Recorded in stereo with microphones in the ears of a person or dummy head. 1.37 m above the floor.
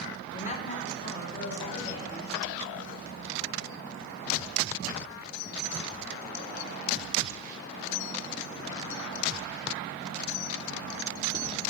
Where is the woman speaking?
40° left (ahead or behind), 0.5 m.